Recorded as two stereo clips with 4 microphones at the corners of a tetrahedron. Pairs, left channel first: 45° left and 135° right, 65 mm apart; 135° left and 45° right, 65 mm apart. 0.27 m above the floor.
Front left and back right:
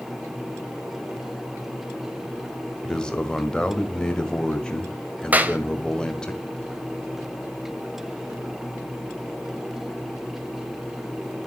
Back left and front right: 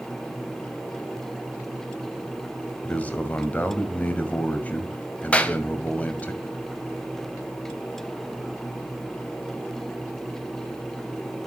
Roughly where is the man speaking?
Left.